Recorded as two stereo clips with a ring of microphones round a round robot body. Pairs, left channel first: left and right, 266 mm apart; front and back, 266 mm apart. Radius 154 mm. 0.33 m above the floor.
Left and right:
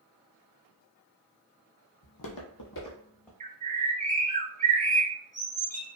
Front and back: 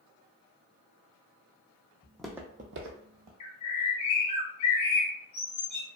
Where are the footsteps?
80° left, 0.8 m; by 3.3 s 175° left, 0.9 m.